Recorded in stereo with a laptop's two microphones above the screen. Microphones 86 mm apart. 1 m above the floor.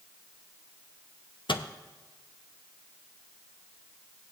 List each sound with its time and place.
1.5 s a microwave: 85° left, 0.6 m